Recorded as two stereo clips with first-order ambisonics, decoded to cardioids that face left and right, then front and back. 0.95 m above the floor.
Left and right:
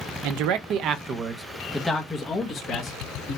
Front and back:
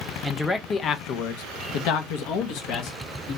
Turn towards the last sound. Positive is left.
turn(degrees=30)